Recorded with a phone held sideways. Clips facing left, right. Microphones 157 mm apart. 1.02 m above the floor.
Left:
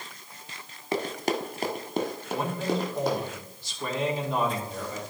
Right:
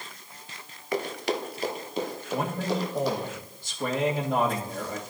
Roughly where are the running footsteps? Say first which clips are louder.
Left 1 dB; left.